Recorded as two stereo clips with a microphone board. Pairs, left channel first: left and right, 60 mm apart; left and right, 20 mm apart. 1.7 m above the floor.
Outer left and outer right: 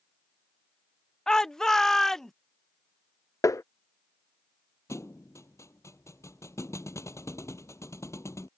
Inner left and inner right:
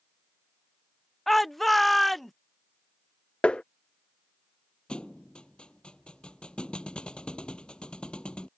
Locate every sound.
1.3 s a shout: 10° left (ahead or behind); by 2.3 s 5° left (ahead or behind)
3.4 s tapping: 65° left (ahead or behind)
4.9 s a thud: 55° left (ahead or behind)